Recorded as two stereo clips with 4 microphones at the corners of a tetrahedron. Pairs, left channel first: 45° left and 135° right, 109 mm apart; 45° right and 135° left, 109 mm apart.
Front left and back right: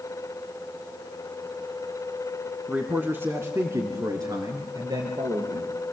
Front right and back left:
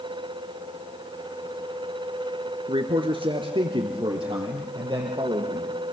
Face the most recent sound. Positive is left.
turn(degrees=-175)